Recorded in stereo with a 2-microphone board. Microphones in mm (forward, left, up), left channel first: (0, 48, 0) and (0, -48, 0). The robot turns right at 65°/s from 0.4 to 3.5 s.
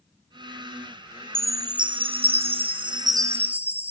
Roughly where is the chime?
Behind right.